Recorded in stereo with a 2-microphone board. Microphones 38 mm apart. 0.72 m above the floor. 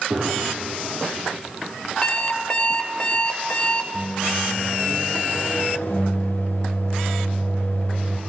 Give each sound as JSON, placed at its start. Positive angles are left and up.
{"t": 0.1, "sound": "a gunshot", "side_deg": -50, "distance_m": 6.0}
{"t": 2.0, "sound": "an alarm clock", "side_deg": 35, "distance_m": 1.5}
{"t": 3.9, "sound": "a microwave", "side_deg": 70, "distance_m": 2.0}